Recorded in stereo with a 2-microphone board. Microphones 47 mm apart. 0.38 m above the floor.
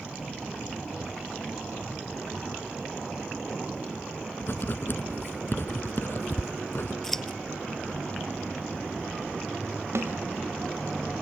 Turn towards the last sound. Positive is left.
turn(degrees=-65)  # may be behind; listen again after turning